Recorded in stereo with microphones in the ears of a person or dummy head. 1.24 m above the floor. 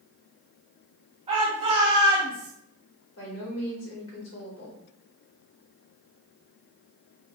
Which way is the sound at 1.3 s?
35° right (ahead or behind).